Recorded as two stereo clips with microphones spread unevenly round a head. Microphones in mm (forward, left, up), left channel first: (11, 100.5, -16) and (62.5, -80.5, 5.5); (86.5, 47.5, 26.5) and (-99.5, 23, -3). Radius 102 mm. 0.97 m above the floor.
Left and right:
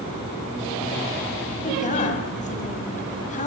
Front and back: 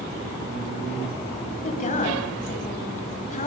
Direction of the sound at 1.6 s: 55° left.